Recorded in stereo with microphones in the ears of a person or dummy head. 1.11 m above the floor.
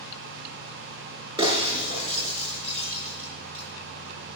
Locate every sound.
1.4 s breaking glass: 25° right (ahead or behind), 6.5 m